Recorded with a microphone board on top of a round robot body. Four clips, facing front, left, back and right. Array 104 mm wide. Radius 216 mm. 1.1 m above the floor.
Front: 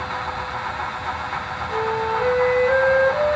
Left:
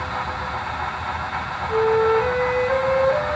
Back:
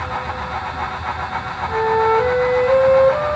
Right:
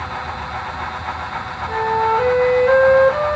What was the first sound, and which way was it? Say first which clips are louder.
A flute: even, back 7 dB; 110° right.